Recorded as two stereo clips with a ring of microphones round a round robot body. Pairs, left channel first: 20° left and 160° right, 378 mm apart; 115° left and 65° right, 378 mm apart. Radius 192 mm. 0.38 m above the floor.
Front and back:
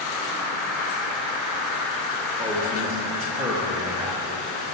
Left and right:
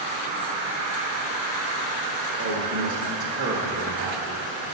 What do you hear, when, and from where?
0.0 s an insect: 60° right, 2 m
2.4 s a man speaking: 85° right, 1.0 m